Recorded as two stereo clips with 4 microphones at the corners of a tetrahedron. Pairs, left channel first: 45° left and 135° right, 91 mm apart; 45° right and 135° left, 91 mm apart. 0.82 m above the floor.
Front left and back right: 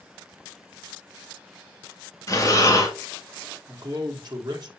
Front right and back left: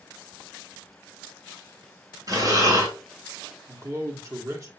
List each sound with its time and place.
2.3 s breathing: 90° left, 1.9 m
3.7 s a man speaking: 175° right, 1.6 m